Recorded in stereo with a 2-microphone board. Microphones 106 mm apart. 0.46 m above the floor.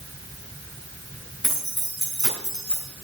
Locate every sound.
1.4 s keys jangling: 5° left (ahead or behind), 3.5 m; by 2.9 s 5° right (ahead or behind), 4.5 m